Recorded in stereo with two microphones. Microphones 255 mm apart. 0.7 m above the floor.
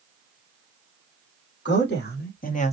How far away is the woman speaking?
About 1.5 m.